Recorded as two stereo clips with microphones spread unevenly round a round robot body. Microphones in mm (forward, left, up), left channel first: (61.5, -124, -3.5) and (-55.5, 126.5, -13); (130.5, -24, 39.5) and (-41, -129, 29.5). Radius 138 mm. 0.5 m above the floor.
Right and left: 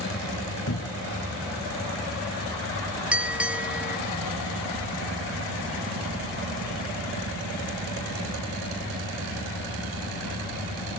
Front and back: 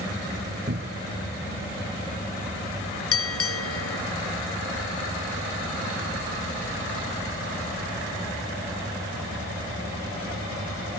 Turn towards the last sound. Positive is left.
turn(degrees=30)